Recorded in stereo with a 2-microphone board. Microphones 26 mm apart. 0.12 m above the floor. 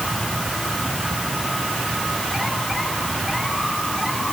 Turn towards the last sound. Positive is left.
No sound to turn to.